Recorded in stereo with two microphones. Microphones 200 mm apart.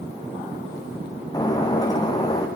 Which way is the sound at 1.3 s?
20° left (ahead or behind).